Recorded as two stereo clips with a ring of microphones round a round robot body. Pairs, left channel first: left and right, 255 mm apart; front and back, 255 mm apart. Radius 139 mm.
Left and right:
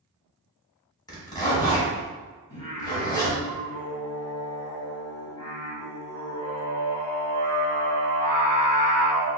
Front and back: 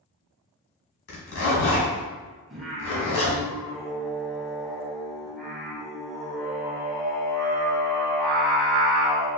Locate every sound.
1.1 s a zipper: 15° left, 1.9 m
2.5 s singing: 90° left, 1.6 m